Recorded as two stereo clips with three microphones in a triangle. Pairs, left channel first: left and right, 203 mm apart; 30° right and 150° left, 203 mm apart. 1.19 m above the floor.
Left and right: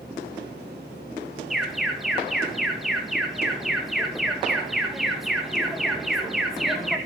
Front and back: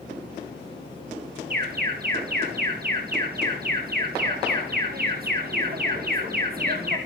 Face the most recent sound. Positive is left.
turn(degrees=180)